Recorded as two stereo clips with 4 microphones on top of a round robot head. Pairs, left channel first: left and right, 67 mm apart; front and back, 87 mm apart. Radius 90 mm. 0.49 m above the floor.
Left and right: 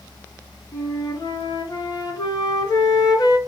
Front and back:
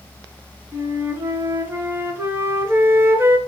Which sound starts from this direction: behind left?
A flute, at 0.7 s.